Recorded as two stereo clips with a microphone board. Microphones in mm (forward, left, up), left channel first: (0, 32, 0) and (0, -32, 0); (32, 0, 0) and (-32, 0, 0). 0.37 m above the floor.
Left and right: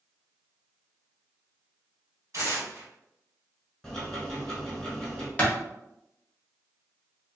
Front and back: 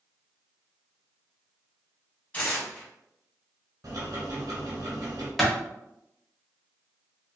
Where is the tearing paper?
65° right, 1.3 m.